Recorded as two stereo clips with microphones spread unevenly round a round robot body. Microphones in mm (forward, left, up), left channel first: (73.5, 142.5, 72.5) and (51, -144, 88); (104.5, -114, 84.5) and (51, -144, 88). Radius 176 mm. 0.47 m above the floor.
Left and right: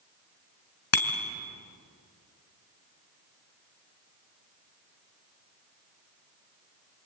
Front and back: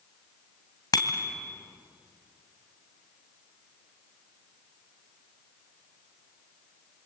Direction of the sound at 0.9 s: 50° left.